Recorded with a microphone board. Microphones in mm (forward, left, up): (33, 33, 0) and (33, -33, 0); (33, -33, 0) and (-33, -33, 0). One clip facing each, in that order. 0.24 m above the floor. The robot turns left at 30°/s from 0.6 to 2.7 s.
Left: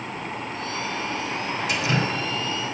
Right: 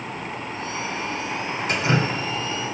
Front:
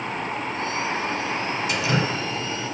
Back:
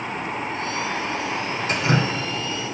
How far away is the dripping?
About 1.8 m.